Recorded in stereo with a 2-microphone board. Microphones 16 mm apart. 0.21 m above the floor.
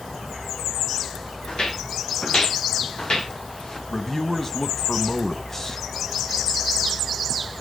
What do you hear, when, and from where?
1.5 s footsteps: 75° left (ahead or behind), 5.5 m; by 3.8 s 45° left (ahead or behind), 2.5 m
3.9 s a man speaking: 25° left (ahead or behind), 1.1 m